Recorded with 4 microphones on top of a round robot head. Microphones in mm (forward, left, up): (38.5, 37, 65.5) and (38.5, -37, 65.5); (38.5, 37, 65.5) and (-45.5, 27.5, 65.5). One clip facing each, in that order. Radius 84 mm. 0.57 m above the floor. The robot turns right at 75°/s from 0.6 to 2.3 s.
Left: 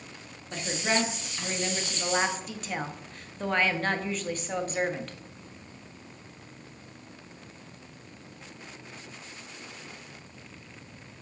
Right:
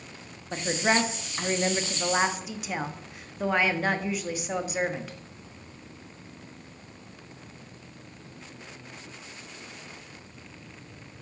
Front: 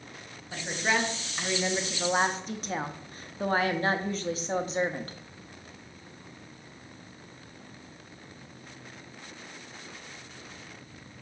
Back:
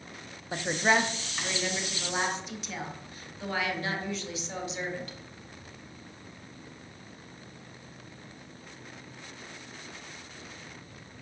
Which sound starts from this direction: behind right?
A woman speaking, at 0.5 s.